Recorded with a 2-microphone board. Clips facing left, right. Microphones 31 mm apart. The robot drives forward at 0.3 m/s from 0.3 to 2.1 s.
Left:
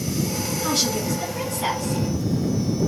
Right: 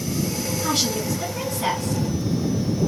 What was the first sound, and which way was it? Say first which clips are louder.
A woman speaking: even; 5° right (ahead or behind).